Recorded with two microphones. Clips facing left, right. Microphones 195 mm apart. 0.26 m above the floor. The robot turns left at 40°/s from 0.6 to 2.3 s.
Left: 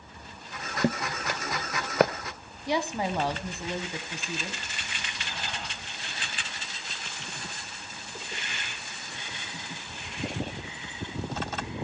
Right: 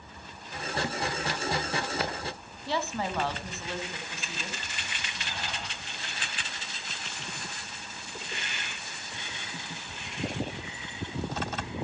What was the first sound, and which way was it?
Footsteps, 55° left (ahead or behind).